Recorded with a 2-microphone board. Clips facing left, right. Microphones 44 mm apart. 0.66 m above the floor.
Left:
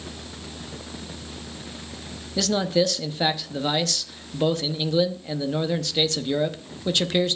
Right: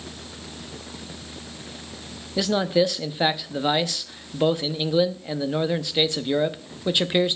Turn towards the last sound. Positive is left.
turn(degrees=-15)  # may be behind; listen again after turning